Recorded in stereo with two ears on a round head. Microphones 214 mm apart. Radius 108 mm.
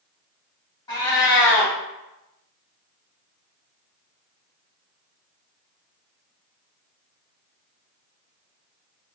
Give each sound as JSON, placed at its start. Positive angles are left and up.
{"t": 0.9, "sound": "a cat meowing", "side_deg": 20, "distance_m": 0.7}